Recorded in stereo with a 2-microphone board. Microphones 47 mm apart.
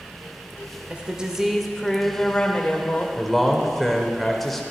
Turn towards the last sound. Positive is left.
turn(degrees=5)  # may be behind; listen again after turning